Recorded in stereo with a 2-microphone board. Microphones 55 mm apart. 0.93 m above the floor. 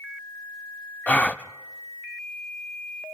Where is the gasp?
30° left (ahead or behind), 0.5 m.